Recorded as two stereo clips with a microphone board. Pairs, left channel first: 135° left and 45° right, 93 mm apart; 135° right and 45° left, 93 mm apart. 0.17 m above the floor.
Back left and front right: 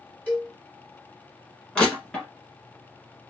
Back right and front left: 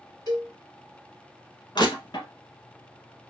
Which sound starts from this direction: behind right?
Crushing, at 1.8 s.